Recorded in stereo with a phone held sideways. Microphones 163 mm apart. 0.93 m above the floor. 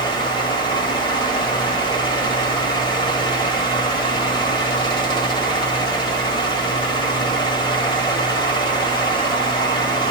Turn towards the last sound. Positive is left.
turn(degrees=30)  # may be behind; listen again after turning